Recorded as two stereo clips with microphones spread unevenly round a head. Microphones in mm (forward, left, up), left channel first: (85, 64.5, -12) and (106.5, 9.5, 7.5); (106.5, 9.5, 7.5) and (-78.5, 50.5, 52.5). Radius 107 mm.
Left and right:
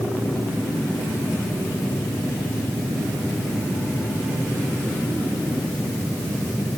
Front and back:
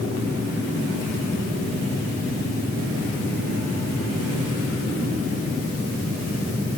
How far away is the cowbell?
I don't hear a cowbell.